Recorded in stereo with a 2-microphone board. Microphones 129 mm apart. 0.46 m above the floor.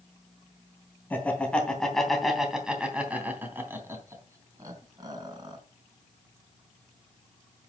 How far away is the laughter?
About 3 m.